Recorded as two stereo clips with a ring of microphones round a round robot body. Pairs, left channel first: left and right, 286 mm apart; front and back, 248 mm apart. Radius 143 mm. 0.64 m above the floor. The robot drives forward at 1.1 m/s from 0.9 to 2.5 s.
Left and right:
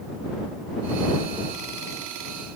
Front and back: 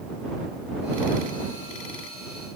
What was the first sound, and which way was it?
Only background noise.